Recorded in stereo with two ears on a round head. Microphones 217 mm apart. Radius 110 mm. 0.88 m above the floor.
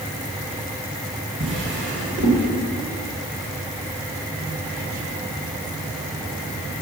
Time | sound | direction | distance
1.4 | a drawer | 50° right (ahead or behind) | 1.9 m